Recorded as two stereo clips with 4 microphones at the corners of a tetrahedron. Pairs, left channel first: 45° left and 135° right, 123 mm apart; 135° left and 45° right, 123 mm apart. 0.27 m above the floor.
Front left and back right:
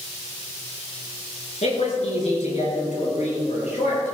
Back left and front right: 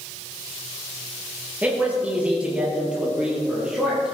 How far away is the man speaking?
About 4.5 m.